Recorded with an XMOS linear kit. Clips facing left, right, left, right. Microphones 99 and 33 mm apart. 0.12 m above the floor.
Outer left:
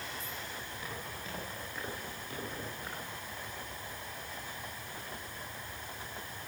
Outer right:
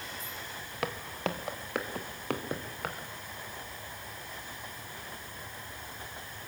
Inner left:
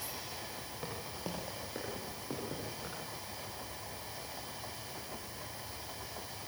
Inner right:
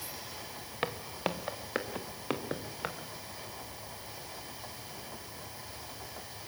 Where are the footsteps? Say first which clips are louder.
Outer right 14 dB, inner right 9 dB; 75° right (ahead or behind), 2 m.